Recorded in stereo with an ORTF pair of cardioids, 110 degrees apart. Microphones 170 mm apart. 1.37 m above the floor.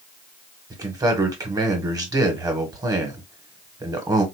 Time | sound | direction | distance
0.7 | a man speaking | 20° right | 1.7 m